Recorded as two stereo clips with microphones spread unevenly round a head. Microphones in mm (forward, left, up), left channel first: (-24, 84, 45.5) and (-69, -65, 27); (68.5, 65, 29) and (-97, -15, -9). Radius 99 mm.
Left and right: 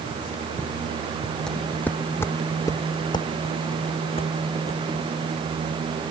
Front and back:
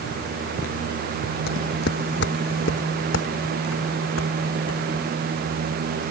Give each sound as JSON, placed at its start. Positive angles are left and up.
{"t": 1.5, "sound": "footsteps", "azimuth_deg": -10}